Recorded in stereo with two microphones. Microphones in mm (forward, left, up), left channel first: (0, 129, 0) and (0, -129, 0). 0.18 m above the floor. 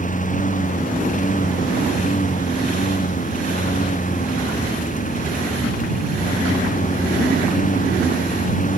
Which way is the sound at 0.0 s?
30° left (ahead or behind).